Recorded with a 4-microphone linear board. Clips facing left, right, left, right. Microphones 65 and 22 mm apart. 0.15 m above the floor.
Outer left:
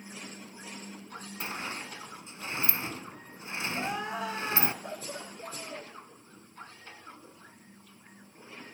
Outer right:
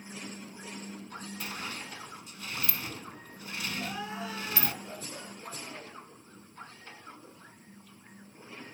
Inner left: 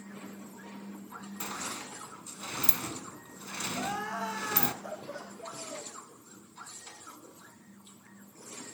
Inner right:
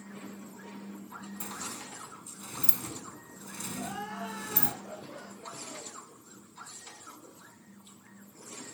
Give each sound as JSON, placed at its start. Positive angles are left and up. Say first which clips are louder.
{"t": 1.4, "sound": "a sliding door", "louder": "outer left 4 dB, inner left 4 dB", "side_deg": 25, "distance_m": 0.8}
{"t": 3.7, "sound": "crying", "louder": "outer left 5 dB, inner left 3 dB", "side_deg": 55, "distance_m": 9.0}